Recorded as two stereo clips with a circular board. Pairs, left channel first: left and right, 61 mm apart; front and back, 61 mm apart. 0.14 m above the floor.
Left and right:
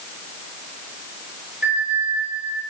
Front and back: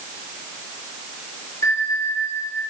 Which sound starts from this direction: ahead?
A bell, at 1.6 s.